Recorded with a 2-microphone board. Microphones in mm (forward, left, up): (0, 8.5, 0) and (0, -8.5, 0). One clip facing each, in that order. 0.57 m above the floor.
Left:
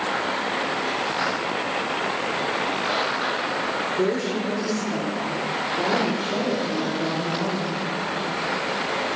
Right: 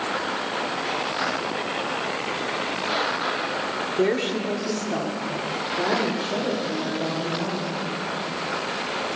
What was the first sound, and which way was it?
A woman speaking, 45° right (ahead or behind).